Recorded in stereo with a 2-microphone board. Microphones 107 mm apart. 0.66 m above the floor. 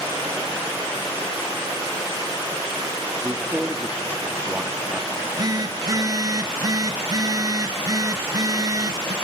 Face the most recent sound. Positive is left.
turn(degrees=-35)  # may be behind; listen again after turning